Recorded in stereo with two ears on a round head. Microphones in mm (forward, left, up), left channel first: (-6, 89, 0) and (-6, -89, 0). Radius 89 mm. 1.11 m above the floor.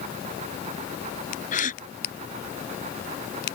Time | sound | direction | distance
1.5 | a gasp | 40° left (ahead or behind) | ?